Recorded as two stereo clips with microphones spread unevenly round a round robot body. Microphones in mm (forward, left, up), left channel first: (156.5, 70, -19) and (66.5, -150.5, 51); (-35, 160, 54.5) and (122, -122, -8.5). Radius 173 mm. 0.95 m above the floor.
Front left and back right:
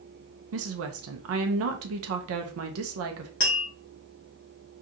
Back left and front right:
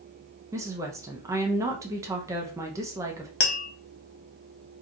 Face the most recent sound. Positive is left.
turn(degrees=125)